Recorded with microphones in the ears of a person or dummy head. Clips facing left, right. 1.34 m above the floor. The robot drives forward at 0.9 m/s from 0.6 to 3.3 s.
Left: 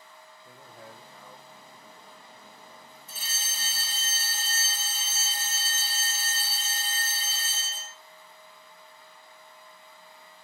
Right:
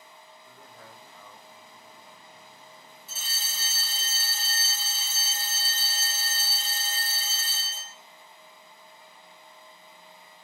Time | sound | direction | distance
0.5 | a man speaking | 25° left (ahead or behind) | 1.2 m
3.1 | a fire alarm | 10° left (ahead or behind) | 3 m